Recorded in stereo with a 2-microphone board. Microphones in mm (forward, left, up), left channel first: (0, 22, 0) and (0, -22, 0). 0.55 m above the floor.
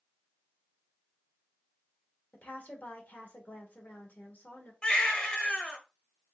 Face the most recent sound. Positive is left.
turn(degrees=25)  # may be behind; listen again after turning